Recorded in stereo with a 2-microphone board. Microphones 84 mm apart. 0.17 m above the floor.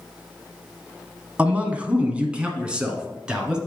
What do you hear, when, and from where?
1.4 s a man speaking: 15° right (ahead or behind), 1.1 m; by 3.6 s 10° right (ahead or behind), 1.8 m